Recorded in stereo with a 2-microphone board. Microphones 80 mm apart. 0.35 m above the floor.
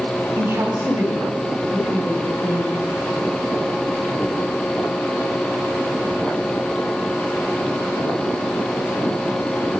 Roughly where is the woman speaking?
Right.